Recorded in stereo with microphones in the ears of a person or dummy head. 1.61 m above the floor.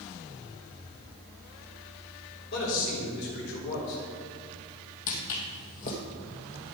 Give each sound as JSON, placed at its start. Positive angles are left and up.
{"t": 2.5, "sound": "a man speaking", "side_deg": 65, "distance_m": 4.0}
{"t": 5.1, "sound": "footsteps", "side_deg": 45, "distance_m": 2.5}